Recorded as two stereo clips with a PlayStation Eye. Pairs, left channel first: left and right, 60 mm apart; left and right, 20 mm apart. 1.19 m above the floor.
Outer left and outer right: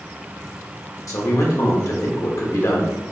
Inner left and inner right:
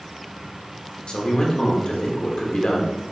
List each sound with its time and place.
1.1 s a man speaking: 60° left (ahead or behind), 1.2 m